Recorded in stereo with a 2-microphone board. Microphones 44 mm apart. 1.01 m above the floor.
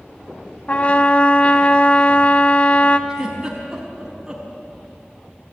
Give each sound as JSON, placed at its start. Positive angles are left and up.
{"t": 0.7, "sound": "a trumpet", "side_deg": 35, "distance_m": 1.0}
{"t": 3.1, "sound": "a giggle", "side_deg": -15, "distance_m": 5.0}